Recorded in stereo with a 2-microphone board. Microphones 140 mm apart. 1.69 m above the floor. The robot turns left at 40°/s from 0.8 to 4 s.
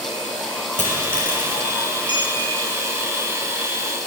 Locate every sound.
0.8 s a dropped coin: 65° left (ahead or behind), 6.5 m; by 1.6 s 75° left (ahead or behind), 6.5 m
2.1 s a clink: 35° left (ahead or behind), 9 m; by 2.4 s 25° left (ahead or behind), 9 m